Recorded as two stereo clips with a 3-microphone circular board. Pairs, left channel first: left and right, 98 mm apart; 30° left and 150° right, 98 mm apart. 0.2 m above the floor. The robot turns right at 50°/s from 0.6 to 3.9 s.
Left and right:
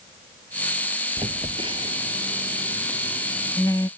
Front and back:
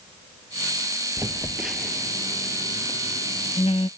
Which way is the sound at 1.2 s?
95° right.